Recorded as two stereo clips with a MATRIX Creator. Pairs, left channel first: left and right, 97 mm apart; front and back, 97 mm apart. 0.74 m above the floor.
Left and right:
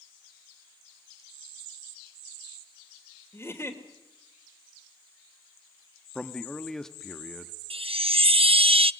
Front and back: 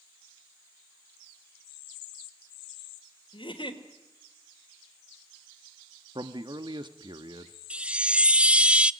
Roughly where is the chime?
Right.